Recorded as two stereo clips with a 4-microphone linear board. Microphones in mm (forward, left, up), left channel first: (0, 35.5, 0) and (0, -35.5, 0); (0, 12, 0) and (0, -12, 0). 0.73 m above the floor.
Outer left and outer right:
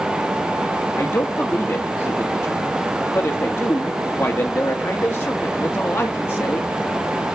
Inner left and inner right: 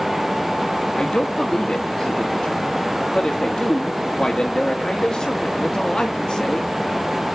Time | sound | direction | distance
1.0 | a man speaking | 30° left (ahead or behind) | 1.3 m